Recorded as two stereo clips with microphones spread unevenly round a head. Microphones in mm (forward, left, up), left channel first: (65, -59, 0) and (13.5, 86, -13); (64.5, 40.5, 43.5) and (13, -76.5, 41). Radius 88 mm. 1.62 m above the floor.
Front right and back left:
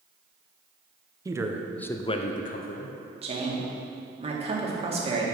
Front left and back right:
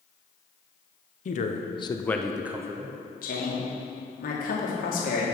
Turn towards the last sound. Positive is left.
turn(degrees=60)